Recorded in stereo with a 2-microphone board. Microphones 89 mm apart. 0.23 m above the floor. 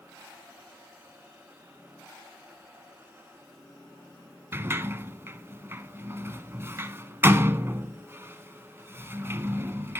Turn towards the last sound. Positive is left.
turn(degrees=-30)  # may be behind; listen again after turning